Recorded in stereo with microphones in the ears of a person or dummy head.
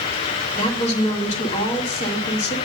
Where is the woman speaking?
35° left (ahead or behind), 1.6 m.